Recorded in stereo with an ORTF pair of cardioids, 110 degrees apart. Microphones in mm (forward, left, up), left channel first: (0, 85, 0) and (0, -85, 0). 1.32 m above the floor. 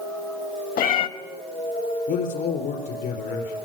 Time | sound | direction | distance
0.8 | a cat meowing | 60° left | 1.5 m
2.1 | a man speaking | 70° left | 4.5 m